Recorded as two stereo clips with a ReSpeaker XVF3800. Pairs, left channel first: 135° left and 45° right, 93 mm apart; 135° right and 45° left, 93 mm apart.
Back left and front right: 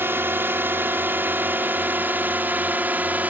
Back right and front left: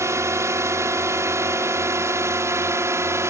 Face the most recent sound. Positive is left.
turn(degrees=15)